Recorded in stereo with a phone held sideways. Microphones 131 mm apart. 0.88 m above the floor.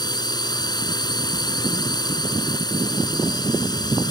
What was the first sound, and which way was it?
A drone, 30° left (ahead or behind).